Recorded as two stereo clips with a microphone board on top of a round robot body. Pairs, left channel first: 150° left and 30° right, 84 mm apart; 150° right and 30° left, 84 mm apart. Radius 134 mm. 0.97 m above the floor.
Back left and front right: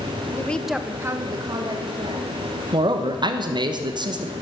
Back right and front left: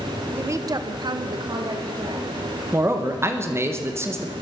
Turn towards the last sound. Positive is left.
turn(degrees=-25)